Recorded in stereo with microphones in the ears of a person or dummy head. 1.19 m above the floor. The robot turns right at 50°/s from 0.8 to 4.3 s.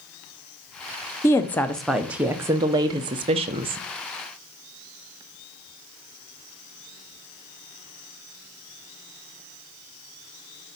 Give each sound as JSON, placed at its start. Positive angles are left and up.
{"t": 1.2, "sound": "a woman speaking", "side_deg": 15, "distance_m": 0.6}